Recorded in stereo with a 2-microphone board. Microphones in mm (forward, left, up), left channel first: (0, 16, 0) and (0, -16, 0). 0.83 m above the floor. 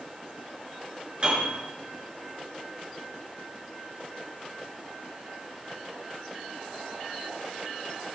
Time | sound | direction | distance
1.2 | a piano | 30° right (ahead or behind) | 6.5 m